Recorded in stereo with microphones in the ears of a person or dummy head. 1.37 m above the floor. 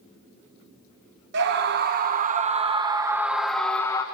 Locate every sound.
1.3 s a scream: 55° right (ahead or behind), 1.6 m; by 4.0 s 20° left (ahead or behind), 1.1 m